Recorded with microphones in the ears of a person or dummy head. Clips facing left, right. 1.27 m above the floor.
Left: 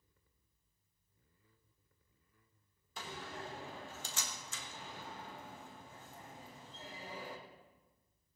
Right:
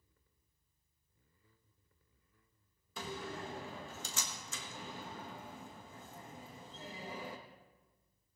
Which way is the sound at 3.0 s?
65° right (ahead or behind).